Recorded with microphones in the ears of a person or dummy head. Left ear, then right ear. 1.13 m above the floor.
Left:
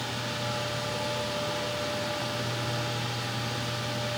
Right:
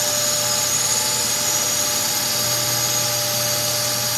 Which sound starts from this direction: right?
A drone, at 0.0 s.